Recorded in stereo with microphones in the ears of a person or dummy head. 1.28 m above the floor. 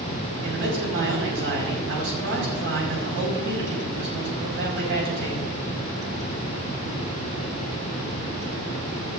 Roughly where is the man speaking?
Right.